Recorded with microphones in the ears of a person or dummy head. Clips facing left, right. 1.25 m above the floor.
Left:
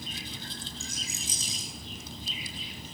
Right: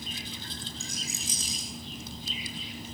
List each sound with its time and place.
0.8 s a rattle: 50° right (ahead or behind), 9.5 m